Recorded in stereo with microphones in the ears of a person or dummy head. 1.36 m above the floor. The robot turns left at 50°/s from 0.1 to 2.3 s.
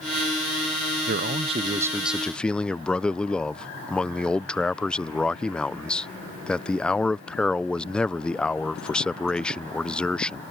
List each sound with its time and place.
1.1 s a man speaking: 125° right; by 10.4 s 175° left